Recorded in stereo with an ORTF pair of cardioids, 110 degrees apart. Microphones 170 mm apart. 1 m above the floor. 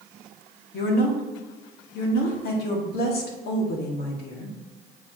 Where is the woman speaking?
70° left, 2 m.